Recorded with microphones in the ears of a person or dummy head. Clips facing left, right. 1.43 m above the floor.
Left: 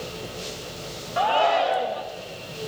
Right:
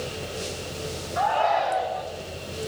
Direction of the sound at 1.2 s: 45° left (ahead or behind).